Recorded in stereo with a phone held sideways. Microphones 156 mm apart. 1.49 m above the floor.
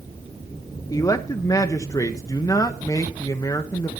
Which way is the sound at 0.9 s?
20° left (ahead or behind).